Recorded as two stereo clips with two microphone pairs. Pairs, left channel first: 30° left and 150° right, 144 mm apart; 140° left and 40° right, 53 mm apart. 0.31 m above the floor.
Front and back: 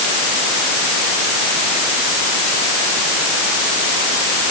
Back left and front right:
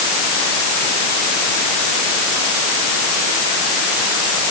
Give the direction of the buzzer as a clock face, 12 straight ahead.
No buzzer in this recording.